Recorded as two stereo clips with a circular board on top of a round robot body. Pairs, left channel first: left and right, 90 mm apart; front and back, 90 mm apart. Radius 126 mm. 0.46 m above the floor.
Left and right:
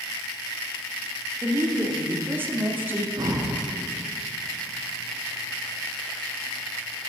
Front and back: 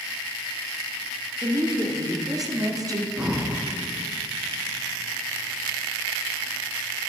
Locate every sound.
1.4 s a woman speaking: 150° right, 1.1 m
3.2 s breathing: 105° right, 1.0 m